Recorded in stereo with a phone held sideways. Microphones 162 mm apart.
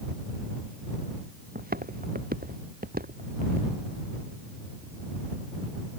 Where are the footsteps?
70° right (ahead or behind); by 3.7 s 65° right (ahead or behind).